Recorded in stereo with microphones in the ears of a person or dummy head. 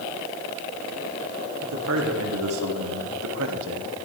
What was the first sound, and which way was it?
A man speaking, 75° right (ahead or behind).